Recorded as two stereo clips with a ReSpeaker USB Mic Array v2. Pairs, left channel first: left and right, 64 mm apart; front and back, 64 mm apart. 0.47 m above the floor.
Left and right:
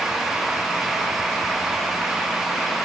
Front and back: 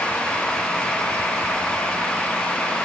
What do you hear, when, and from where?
Only background noise.